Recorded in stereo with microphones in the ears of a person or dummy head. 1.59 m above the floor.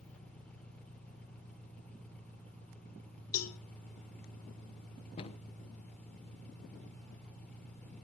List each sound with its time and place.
0.0 s an engine running: 10° left (ahead or behind), 2.5 m
3.3 s a cowbell: 85° left, 1.6 m
5.2 s a cupboard door: 40° left (ahead or behind), 1.2 m